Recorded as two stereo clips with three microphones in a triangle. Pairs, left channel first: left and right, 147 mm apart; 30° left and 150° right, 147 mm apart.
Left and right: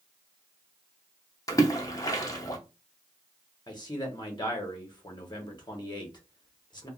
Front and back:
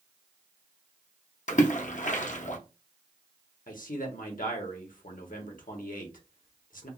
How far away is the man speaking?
About 1.0 m.